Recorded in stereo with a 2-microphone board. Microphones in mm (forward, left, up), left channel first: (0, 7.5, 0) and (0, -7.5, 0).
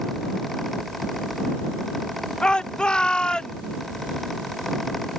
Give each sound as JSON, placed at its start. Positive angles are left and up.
{"t": 2.4, "sound": "a shout", "side_deg": 75}